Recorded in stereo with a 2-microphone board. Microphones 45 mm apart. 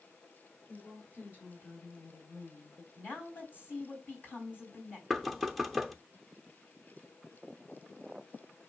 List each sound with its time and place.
0.7 s a woman speaking: 40° left (ahead or behind), 2 m; by 2.9 s 55° left (ahead or behind), 2.0 m
3.0 s a woman speaking: 45° left (ahead or behind), 3.5 m
5.1 s knocking: centre (ahead or behind), 0.6 m